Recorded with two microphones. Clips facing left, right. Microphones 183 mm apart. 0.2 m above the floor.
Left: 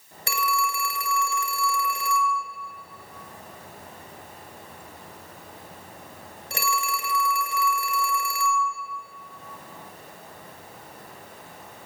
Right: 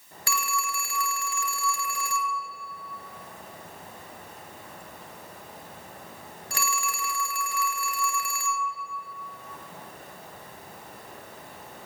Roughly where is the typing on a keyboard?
No typing on a keyboard in this recording.